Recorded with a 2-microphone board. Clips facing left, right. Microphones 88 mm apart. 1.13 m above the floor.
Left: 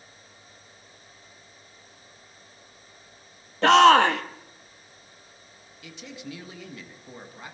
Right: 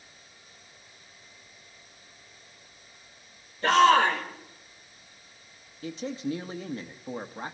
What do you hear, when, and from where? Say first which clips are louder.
3.6 s a shout: left 4 dB; 80° left, 1.8 m
5.8 s a man speaking: right 9 dB; 35° right (ahead or behind), 1.2 m